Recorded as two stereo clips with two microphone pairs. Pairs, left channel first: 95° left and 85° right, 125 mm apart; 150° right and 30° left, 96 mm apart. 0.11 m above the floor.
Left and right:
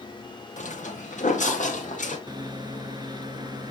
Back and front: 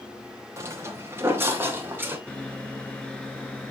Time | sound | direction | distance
0.6 | footsteps | 90° left | 1.6 m
2.3 | a microwave | 80° right | 1.3 m